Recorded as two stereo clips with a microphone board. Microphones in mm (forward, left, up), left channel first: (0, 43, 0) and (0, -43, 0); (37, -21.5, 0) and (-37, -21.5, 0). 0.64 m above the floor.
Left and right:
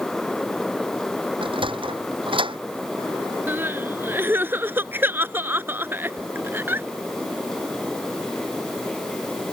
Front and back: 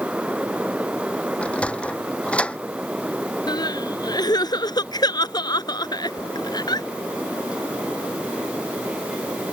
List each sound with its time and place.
1.4 s a sliding door: 75° right
3.5 s crying: 25° right